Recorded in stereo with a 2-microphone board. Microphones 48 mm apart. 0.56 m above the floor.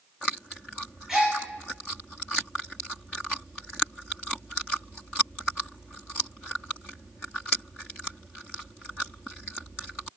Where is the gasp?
15° right (ahead or behind), 1.5 m.